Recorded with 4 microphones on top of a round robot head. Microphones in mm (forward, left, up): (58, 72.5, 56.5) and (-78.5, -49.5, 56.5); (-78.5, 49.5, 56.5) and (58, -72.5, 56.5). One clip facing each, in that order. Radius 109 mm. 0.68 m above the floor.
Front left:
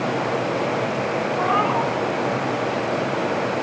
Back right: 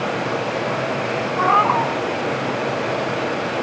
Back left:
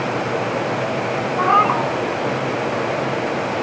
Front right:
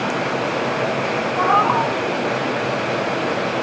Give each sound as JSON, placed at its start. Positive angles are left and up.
{"t": 1.4, "sound": "a cat meowing", "azimuth_deg": -160, "distance_m": 2.5}